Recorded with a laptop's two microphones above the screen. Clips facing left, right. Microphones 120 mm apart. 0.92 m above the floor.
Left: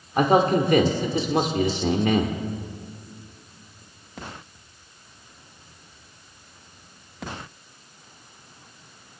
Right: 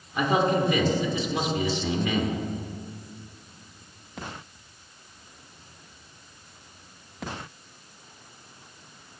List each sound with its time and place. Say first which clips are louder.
0.2 s a man speaking: left 4 dB; 50° left (ahead or behind), 2 m